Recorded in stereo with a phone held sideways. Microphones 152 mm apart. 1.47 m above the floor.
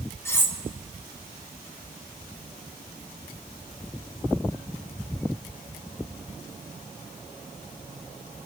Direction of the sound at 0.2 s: 15° left (ahead or behind).